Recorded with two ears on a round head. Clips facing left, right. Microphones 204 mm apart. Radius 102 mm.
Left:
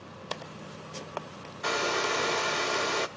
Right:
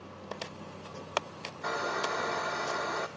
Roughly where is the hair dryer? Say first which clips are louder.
Left 4 dB; left.